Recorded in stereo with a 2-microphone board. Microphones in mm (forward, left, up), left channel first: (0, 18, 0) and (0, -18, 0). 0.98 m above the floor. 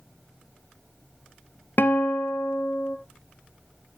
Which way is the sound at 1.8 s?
65° left (ahead or behind).